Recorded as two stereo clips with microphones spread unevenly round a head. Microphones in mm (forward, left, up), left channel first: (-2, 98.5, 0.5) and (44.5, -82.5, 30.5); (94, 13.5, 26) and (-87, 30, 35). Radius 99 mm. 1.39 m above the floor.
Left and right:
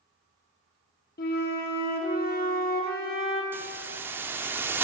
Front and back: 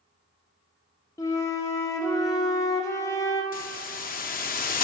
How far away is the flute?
About 0.9 m.